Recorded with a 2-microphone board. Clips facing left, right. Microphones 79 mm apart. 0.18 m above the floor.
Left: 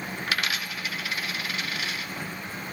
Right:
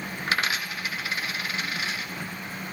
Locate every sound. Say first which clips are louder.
0.3 s a dropped coin: right 3 dB; 25° right (ahead or behind), 1.2 m